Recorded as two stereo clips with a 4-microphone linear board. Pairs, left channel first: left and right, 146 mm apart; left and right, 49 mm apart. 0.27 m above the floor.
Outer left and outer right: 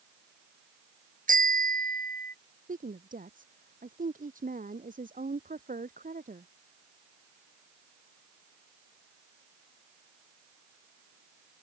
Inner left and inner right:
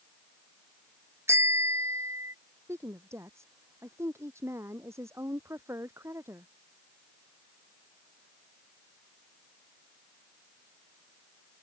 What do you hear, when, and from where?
1.3 s a bicycle bell: 65° right (ahead or behind); by 2.3 s 70° right (ahead or behind)
2.7 s a woman speaking: 70° right (ahead or behind)